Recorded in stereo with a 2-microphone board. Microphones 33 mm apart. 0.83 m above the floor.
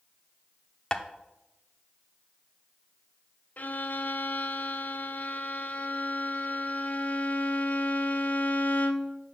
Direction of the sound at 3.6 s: 55° left (ahead or behind).